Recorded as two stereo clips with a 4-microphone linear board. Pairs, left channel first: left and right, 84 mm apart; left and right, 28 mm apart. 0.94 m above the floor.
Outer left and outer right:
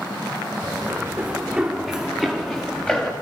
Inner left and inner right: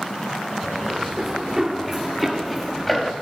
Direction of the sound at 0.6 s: 20° right (ahead or behind).